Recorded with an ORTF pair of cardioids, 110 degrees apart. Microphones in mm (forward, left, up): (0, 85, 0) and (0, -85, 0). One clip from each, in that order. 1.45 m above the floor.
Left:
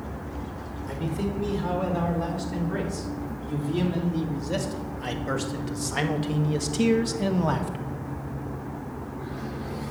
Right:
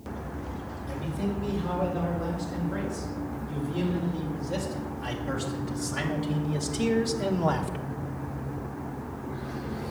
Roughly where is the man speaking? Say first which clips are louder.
Left 2 dB; ahead left.